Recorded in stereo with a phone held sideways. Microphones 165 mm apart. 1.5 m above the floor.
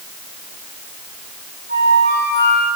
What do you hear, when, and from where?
1.7 s a flute: 85° right, 8.5 m